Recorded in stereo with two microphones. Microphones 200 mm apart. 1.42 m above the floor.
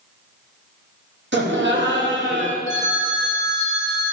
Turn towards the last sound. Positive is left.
turn(degrees=-65)  # may be behind; listen again after turning